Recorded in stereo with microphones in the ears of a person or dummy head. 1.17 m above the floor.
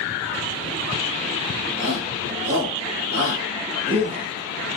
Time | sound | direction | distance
1.8 | a shout | 80° right | 1.9 m